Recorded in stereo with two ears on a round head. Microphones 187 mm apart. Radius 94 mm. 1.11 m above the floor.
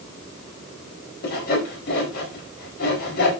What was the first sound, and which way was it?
Sawing, 50° left (ahead or behind).